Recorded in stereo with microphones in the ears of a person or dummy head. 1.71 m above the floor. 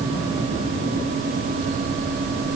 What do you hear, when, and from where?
Only background noise.